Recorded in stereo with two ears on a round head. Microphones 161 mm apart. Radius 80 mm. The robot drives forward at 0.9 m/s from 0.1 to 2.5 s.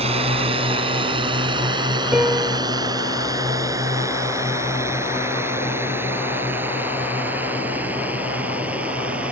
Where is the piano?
5° right (ahead or behind).